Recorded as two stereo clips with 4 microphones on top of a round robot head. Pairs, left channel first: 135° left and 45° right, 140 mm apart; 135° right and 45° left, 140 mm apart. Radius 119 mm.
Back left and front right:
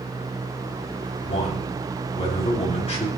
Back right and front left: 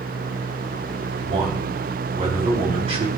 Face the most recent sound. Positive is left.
turn(degrees=90)